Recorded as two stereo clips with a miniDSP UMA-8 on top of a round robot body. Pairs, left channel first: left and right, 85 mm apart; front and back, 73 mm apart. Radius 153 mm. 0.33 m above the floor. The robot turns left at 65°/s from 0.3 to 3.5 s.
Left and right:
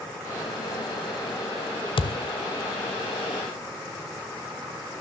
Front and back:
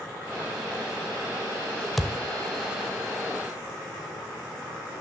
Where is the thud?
90° left, 0.6 m; by 2.2 s 75° left, 0.6 m.